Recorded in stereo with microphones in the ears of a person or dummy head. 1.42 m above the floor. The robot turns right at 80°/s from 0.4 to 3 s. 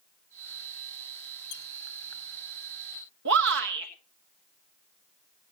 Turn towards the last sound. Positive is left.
turn(degrees=-65)  # may be behind; listen again after turning